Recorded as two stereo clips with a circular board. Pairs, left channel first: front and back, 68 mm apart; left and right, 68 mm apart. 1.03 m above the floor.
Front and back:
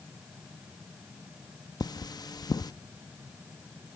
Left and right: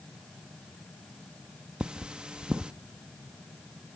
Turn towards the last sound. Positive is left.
turn(degrees=-15)